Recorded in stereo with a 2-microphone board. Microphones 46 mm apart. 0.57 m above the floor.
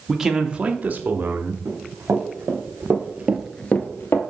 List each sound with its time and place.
0.1 s a man speaking: 5° right (ahead or behind), 0.9 m; by 1.6 s 50° right (ahead or behind), 1.1 m
1.6 s running footsteps: 60° right (ahead or behind), 3 m; by 4.2 s 60° left (ahead or behind), 1.1 m